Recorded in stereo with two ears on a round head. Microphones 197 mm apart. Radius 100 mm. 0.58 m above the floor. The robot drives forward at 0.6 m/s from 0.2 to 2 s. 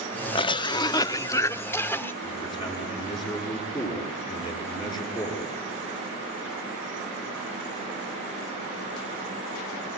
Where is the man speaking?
20° left (ahead or behind), 8.5 m.